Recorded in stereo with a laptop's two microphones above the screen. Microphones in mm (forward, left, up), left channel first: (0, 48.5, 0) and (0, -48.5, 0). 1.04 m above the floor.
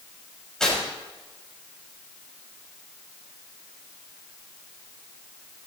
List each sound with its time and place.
0.6 s tearing paper: 5° left (ahead or behind), 6.5 m